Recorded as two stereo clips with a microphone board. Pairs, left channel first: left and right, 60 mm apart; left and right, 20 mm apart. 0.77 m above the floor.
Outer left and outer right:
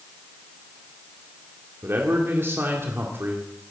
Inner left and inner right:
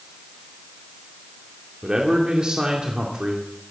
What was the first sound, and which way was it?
A man speaking, 40° right (ahead or behind).